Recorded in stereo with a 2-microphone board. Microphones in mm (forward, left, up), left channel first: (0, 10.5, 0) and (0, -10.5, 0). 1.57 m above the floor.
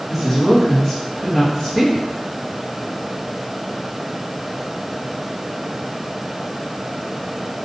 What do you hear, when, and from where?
0.1 s a woman speaking: 5° right (ahead or behind), 1.6 m